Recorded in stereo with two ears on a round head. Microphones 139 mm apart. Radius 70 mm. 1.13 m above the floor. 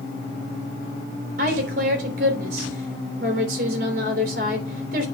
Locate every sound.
1.4 s a woman speaking: 50° right (ahead or behind), 3.5 m